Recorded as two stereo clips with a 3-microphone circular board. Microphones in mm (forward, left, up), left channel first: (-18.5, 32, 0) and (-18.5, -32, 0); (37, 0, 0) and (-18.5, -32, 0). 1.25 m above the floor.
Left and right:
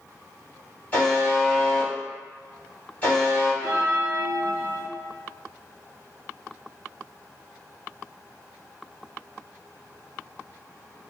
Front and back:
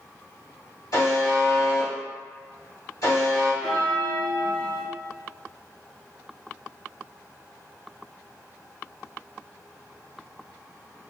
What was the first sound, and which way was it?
A buzzer, 30° left.